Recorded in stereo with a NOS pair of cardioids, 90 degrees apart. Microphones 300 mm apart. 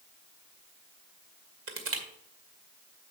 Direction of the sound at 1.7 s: 50° right.